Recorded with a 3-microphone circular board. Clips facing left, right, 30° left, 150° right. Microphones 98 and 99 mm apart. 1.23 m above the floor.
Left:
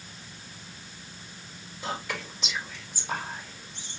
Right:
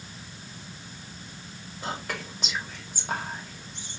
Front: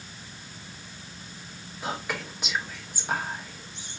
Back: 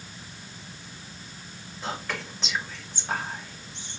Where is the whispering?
50° right, 2 m.